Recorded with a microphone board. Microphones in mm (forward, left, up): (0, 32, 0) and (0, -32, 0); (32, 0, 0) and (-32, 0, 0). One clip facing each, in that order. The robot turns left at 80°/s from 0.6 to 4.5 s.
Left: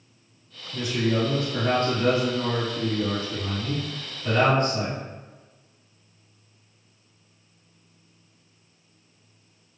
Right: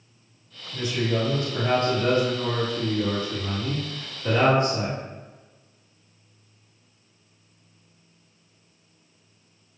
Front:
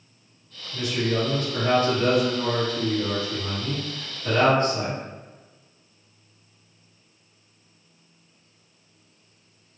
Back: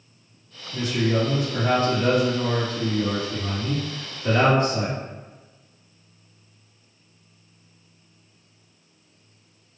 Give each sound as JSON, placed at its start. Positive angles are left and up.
{"t": 0.7, "sound": "a man speaking", "azimuth_deg": 170, "distance_m": 1.8}